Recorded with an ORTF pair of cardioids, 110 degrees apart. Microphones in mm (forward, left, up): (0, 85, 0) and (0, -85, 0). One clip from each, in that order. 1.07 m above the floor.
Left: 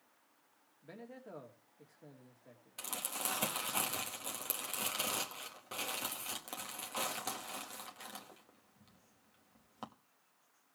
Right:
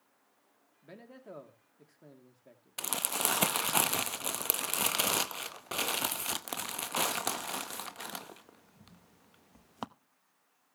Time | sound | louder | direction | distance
0.8 | a man speaking | right 1 dB | 20° right | 3 m
2.8 | crumpling | right 8 dB | 50° right | 0.8 m